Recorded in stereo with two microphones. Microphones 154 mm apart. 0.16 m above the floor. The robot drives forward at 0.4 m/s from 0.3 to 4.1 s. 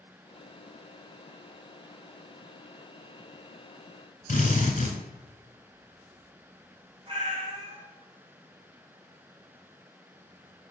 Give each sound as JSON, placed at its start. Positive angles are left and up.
{"t": 4.3, "sound": "a drill", "side_deg": 55, "distance_m": 0.7}
{"t": 7.1, "sound": "a cat meowing", "side_deg": -40, "distance_m": 1.2}